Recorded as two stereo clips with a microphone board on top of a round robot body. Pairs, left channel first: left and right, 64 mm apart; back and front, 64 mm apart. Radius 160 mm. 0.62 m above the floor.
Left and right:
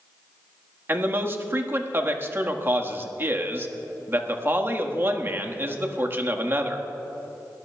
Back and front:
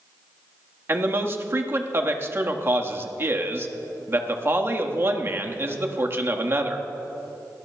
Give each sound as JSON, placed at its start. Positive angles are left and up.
{"t": 0.9, "sound": "a man speaking", "azimuth_deg": -45, "distance_m": 1.5}